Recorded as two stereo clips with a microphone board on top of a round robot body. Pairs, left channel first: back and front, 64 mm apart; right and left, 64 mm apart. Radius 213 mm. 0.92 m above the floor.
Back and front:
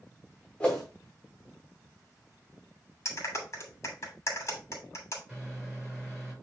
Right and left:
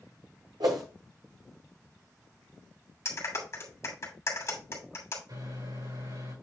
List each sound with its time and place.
0.6 s a whoosh: 105° left, 0.7 m
3.0 s a clap: 135° right, 2.5 m
5.3 s a microwave: 90° left, 5.5 m